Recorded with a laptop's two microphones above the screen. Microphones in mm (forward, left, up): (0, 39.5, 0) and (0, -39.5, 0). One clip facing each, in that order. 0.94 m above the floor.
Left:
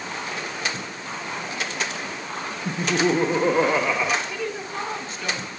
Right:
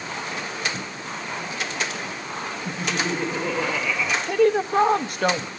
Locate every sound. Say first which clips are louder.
2.6 s laughter: left 6 dB; 35° left (ahead or behind), 1.6 m
4.3 s a woman speaking: right 11 dB; 60° right (ahead or behind), 1.2 m